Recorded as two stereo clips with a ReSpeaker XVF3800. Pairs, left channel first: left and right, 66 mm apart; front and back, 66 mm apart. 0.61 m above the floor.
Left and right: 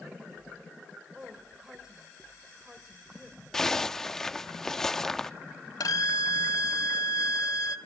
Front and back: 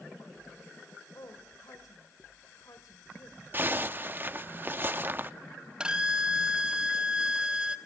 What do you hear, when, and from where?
1.1 s a woman speaking: 10° right, 3 m
3.5 s a zipper: 165° left, 0.6 m
5.8 s a violin: 105° left, 1.2 m